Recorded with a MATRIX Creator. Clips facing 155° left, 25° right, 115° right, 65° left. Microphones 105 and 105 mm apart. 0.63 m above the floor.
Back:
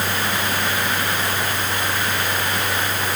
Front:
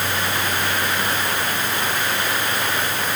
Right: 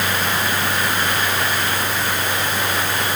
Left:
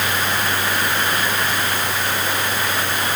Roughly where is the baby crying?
I don't hear a baby crying.